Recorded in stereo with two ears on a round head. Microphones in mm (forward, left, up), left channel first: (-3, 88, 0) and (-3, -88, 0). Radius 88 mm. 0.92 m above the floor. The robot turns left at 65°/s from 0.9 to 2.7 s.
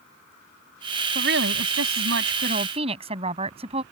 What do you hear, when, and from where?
1.1 s a woman speaking: 50° right; by 3.8 s 150° right